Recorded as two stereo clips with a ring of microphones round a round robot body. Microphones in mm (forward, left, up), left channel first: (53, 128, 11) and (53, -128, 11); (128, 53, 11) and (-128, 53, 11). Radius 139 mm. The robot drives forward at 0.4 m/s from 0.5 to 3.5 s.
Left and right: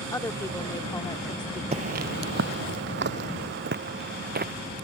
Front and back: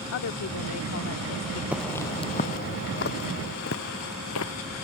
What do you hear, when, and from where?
0.1 s a woman speaking: 15° left; by 1.6 s 20° left
1.7 s footsteps: 105° right; by 4.5 s 40° right